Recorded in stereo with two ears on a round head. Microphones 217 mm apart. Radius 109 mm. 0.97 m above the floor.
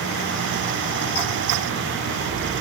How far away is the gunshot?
I don't hear a gunshot.